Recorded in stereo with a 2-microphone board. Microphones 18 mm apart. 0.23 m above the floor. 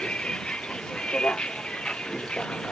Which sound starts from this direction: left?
A vehicle, at 0.0 s.